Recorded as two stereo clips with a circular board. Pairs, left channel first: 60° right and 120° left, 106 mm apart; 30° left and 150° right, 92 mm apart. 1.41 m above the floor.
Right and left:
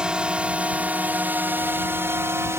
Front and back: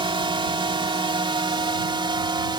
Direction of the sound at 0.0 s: 160° right.